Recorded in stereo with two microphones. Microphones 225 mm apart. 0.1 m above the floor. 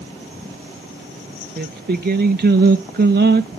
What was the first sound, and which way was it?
Singing, 45° right (ahead or behind).